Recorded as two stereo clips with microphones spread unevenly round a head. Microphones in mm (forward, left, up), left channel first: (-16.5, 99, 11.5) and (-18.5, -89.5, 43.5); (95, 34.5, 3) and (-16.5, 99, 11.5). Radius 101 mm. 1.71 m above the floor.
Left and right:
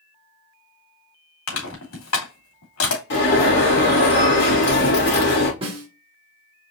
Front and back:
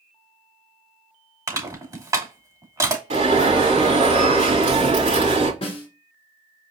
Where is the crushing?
90° left, 3 m.